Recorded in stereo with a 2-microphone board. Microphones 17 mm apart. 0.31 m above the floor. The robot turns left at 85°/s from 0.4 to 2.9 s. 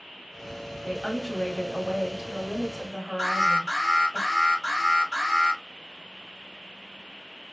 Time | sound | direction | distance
0.8 | a woman speaking | 170° right | 1.2 m
3.2 | an alarm | 10° left (ahead or behind) | 2 m